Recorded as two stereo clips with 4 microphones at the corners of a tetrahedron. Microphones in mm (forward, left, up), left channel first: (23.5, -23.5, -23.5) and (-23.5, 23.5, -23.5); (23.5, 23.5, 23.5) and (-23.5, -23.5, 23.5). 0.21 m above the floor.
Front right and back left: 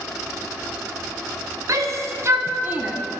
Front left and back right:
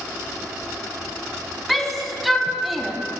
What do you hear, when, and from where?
1.7 s a shout: 135° left, 1.6 m; by 3.0 s 140° left, 1.0 m